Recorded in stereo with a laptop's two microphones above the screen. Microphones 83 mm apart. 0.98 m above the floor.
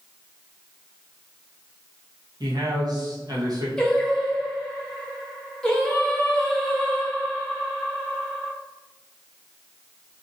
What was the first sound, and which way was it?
A man speaking, 50° right (ahead or behind).